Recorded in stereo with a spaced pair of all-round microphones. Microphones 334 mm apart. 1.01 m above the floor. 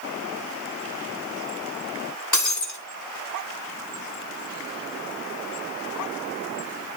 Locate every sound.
2.3 s breaking glass: 60° left (ahead or behind), 2.5 m